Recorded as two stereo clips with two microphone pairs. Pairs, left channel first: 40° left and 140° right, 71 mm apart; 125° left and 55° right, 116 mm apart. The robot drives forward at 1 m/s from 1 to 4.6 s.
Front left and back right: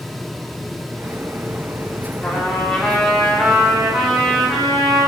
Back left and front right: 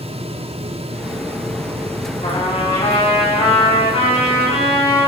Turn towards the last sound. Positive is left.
turn(degrees=150)